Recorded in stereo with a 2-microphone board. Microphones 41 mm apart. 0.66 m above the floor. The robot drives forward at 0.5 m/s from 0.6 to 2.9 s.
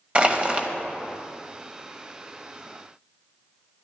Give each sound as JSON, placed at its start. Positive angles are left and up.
{"t": 0.1, "sound": "crushing", "side_deg": -25, "distance_m": 1.2}